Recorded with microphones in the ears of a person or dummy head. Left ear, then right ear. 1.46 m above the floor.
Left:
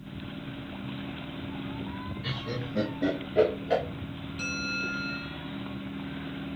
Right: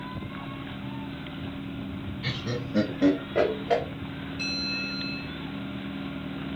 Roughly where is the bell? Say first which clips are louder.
Right 1 dB; left.